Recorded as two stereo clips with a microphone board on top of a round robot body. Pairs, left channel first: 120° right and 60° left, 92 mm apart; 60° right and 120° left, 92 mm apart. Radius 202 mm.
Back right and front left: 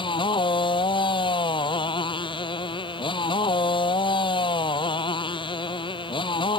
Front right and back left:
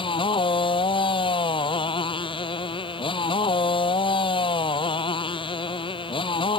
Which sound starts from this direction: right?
A motorcycle, at 0.0 s.